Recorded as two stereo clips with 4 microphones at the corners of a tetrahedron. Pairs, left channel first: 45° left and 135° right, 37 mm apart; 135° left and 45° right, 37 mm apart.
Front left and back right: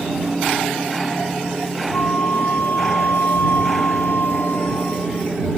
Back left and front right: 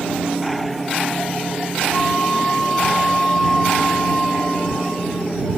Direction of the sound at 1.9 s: 60° left.